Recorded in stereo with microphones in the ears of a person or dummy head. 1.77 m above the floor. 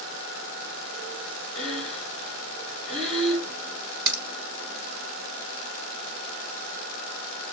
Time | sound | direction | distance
1.6 | breathing | centre (ahead or behind) | 3.5 m
4.1 | a crack | 15° right (ahead or behind) | 3.5 m